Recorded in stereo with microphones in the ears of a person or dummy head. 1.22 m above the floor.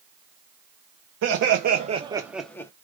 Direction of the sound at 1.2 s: 70° right (ahead or behind).